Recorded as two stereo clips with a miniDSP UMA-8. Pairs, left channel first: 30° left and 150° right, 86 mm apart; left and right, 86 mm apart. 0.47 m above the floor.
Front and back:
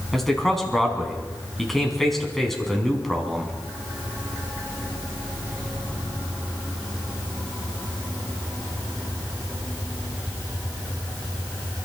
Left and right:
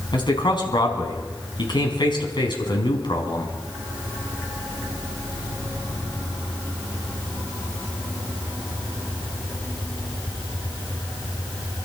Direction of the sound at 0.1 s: 115° left.